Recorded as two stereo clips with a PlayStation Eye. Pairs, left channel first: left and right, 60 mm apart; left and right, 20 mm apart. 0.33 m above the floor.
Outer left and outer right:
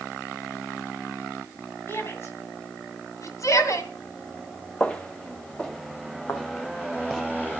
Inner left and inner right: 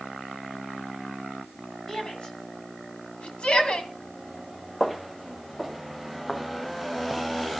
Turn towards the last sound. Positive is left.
turn(degrees=70)  # may be behind; listen again after turning